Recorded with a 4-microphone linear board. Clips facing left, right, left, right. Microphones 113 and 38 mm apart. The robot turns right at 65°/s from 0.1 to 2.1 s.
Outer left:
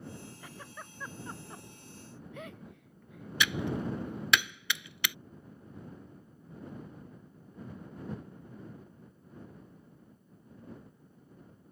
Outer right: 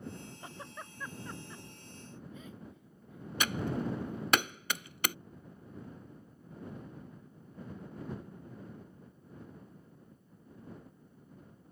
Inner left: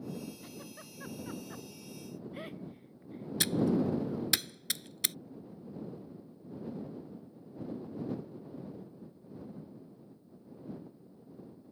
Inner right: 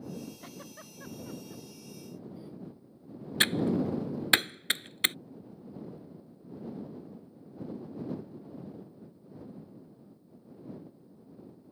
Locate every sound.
0.4 s a giggle: 30° right (ahead or behind); by 4.3 s 80° left
3.4 s typing on a keyboard: 45° right (ahead or behind)